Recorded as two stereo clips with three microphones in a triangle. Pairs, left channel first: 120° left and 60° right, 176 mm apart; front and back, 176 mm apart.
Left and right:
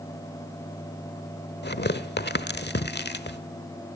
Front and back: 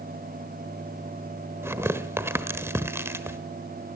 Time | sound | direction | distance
1.6 | tearing paper | 105° left | 1.2 m